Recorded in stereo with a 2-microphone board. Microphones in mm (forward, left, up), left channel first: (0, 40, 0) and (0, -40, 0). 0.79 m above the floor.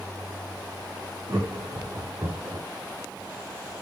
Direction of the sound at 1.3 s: 60° right (ahead or behind).